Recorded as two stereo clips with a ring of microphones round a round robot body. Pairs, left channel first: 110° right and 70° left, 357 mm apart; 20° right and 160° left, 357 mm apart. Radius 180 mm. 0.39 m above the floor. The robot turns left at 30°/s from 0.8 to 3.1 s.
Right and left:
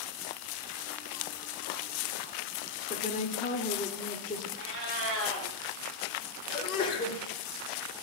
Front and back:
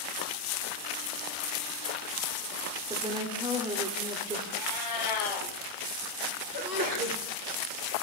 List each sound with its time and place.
2.9 s a woman speaking: 135° right, 0.9 m; by 4.5 s 140° right, 0.9 m
4.5 s a cat meowing: 10° left, 3.5 m
6.5 s a sneeze: 175° right, 1.4 m